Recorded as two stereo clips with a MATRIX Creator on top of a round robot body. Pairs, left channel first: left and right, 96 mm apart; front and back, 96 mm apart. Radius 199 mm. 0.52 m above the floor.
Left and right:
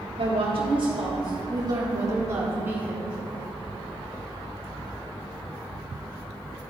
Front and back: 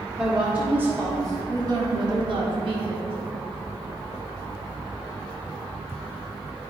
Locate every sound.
0.2 s a woman speaking: 100° right, 1.8 m; by 3.1 s 170° right, 2 m